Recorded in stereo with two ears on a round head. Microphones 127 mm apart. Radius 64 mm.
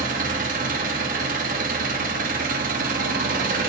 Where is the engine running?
65° right (ahead or behind), 0.8 m.